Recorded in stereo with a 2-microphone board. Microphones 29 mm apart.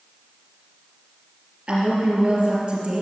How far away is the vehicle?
No vehicle in this recording.